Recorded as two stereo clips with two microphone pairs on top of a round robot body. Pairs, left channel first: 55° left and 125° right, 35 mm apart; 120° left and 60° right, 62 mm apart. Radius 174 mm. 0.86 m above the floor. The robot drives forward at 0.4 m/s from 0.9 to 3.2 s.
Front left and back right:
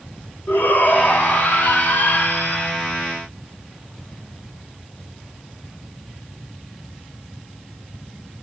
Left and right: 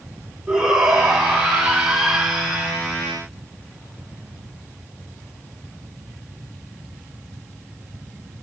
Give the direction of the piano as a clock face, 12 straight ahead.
I don't hear a piano.